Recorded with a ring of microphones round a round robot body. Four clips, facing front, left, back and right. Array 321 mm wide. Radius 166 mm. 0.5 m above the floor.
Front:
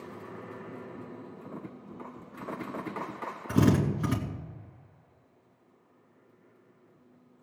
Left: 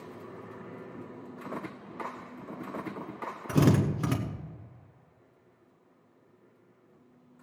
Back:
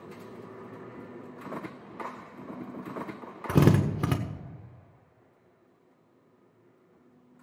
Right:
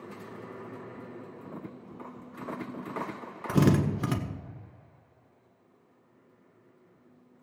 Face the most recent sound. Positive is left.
turn(degrees=-175)